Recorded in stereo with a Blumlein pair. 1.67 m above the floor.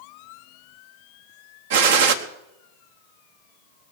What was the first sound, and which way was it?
A gunshot, 55° right.